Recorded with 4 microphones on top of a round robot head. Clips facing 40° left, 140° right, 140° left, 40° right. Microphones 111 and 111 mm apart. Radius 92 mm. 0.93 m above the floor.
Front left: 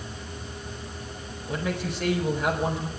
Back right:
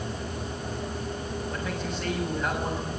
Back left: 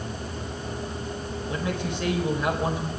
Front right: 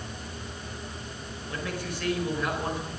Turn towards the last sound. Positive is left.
turn(degrees=65)